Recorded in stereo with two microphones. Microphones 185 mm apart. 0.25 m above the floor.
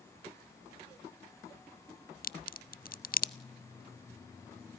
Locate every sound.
2.2 s a crack: 55° left (ahead or behind), 0.6 m